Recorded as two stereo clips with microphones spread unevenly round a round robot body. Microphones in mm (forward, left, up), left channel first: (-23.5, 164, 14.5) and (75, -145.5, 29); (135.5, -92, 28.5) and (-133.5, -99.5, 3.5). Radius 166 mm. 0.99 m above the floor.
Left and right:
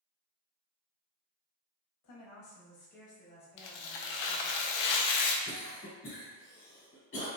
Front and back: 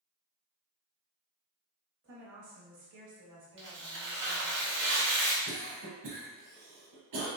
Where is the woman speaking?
135° left, 1.1 m; by 4.6 s 165° right, 2.5 m.